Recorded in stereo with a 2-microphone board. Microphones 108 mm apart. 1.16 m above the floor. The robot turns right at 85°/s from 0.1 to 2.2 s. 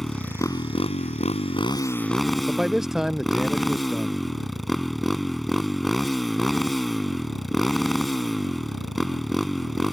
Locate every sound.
0.0 s a motorcycle: straight ahead; by 9.9 s straight behind
2.5 s a man speaking: 5° right (ahead or behind)